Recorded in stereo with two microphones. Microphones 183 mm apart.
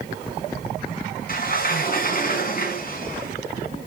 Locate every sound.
1.3 s a sliding door: 50° left (ahead or behind), 3.5 m